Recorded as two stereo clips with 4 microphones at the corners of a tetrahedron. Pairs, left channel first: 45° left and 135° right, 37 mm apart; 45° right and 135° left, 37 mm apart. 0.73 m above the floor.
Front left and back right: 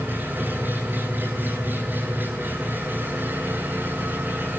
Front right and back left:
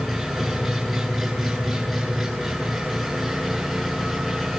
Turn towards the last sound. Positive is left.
turn(degrees=-135)